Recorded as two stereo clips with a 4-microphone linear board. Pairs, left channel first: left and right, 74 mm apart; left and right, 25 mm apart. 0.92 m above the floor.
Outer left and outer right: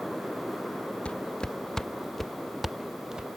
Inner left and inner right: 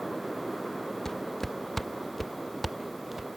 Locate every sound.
1.1 s footsteps: 15° left (ahead or behind); by 3.3 s 10° right (ahead or behind)